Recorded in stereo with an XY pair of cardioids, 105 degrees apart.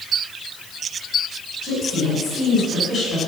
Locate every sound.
1.6 s a woman speaking: 50° left, 6.5 m; by 3.2 s 45° left, 7.5 m